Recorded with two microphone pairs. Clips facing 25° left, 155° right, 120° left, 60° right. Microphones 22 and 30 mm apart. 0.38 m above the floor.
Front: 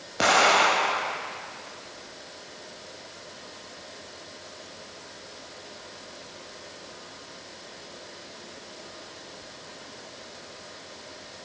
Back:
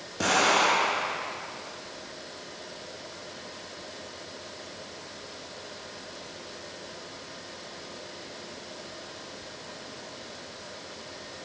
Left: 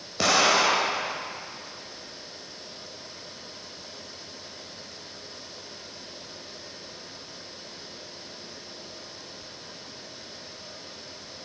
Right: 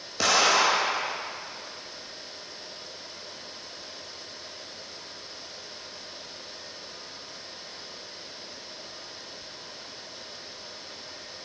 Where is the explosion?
40° left, 0.7 m.